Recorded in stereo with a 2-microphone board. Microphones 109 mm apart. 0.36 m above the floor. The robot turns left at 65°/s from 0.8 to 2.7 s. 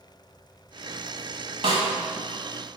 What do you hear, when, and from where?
1.6 s a snare drum: 55° right (ahead or behind), 2.0 m